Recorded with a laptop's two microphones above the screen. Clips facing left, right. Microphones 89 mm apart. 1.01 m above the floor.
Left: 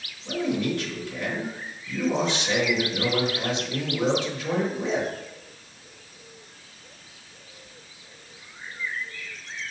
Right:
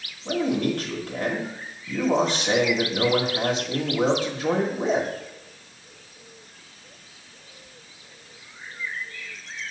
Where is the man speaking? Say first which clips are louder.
Right 2 dB; 45° right (ahead or behind), 1.5 m.